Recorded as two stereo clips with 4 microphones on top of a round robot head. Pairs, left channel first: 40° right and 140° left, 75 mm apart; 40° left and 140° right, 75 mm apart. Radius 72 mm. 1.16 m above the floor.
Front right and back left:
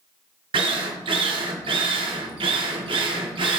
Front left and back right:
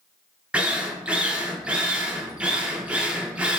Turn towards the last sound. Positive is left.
turn(degrees=145)